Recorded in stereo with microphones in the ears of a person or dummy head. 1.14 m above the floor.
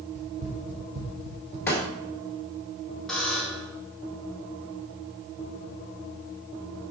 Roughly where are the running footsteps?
Right.